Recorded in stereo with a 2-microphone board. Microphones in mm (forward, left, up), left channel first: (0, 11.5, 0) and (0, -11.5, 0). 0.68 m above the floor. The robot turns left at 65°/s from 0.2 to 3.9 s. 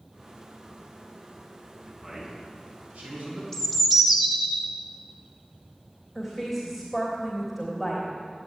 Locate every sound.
1.9 s a man speaking: 15° left, 6 m; by 3.4 s 90° right, 6 m
3.5 s a bird: 10° left (ahead or behind), 1.5 m; by 4.7 s 10° right (ahead or behind), 1.5 m
6.2 s a woman speaking: 10° right (ahead or behind), 3 m